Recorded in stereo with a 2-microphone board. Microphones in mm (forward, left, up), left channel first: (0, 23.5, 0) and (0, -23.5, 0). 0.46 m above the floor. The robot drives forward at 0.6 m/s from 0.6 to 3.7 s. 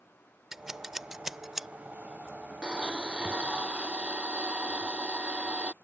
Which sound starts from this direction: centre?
Scissors, at 0.5 s.